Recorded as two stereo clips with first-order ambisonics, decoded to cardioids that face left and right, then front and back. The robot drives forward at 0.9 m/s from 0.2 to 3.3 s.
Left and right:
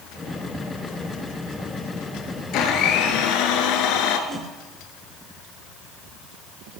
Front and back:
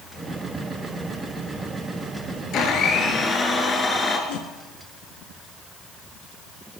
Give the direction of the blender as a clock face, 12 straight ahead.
10 o'clock.